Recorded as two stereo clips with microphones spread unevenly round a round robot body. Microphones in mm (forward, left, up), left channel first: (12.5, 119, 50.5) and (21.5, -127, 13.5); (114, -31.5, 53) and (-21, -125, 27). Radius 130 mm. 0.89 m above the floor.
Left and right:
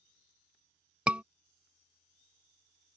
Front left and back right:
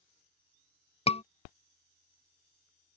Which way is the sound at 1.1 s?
15° right.